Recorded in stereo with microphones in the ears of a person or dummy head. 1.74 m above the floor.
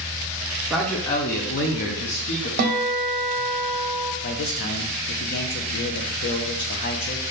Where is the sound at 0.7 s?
5° right (ahead or behind), 0.5 m; by 2.5 s 60° left (ahead or behind), 1.0 m.